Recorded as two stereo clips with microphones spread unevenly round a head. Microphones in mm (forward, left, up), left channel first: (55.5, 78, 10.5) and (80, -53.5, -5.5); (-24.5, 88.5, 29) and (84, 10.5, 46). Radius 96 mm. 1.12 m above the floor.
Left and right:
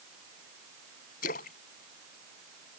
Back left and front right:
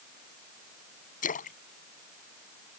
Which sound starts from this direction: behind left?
A splash, at 1.2 s.